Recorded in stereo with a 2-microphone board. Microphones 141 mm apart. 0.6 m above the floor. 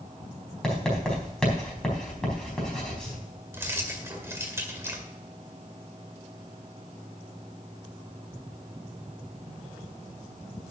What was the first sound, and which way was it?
Writing, 5° left (ahead or behind).